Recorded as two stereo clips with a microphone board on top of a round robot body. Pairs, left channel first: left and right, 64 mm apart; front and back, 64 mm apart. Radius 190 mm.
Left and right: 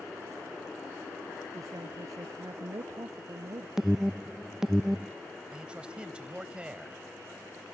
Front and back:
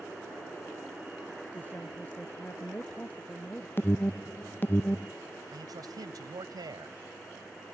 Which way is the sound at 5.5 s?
165° right.